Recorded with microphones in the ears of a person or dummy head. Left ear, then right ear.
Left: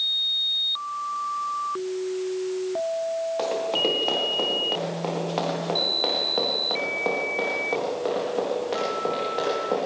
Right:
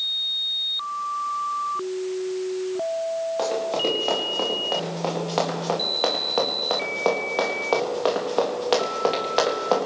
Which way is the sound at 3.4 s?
Centre (ahead or behind).